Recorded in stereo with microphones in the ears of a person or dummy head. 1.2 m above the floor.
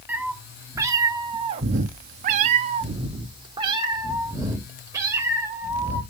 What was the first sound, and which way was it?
A cat meowing, 10° right (ahead or behind).